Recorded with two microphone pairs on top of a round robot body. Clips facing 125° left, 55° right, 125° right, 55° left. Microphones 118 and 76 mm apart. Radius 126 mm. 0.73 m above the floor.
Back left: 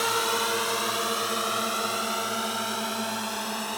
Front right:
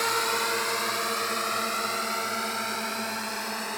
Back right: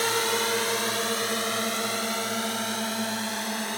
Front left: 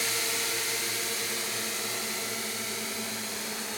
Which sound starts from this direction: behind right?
A drone, at 0.0 s.